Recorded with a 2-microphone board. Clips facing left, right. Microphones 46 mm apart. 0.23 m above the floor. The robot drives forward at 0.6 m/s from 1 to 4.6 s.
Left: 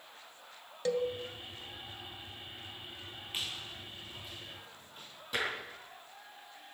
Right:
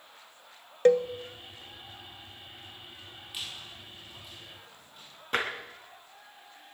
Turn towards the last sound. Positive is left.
turn(degrees=-50)  # may be behind; listen again after turning